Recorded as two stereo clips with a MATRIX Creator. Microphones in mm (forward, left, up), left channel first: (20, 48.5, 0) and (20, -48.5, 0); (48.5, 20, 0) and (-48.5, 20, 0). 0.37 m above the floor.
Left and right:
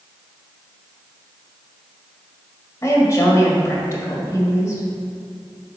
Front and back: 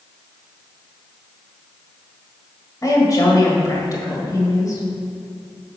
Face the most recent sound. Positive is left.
turn(degrees=40)